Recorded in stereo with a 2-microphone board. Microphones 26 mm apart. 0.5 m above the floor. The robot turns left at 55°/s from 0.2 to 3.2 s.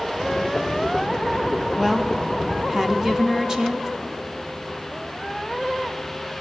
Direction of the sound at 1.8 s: 5° right (ahead or behind).